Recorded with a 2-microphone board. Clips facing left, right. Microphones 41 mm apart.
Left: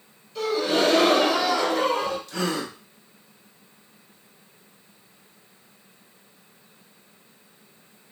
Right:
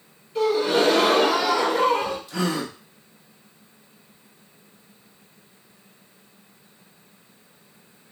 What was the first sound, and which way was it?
A gasp, 25° right (ahead or behind).